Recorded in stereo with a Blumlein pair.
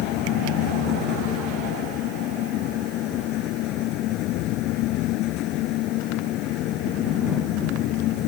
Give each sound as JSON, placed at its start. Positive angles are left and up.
{"t": 0.0, "sound": "a fan", "azimuth_deg": 35}